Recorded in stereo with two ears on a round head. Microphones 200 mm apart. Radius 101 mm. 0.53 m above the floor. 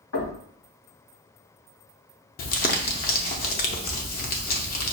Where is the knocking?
70° left (ahead or behind), 2.5 m.